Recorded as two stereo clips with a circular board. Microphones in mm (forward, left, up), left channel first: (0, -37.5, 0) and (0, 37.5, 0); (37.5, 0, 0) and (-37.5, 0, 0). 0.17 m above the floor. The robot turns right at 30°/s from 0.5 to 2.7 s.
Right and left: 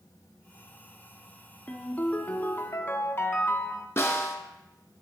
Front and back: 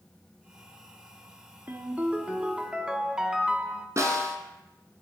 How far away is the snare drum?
About 1.3 m.